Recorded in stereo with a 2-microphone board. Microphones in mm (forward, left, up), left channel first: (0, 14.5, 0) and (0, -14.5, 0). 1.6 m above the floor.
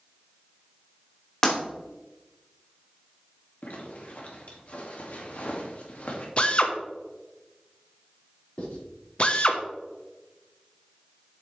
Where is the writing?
40° left (ahead or behind), 4.5 m.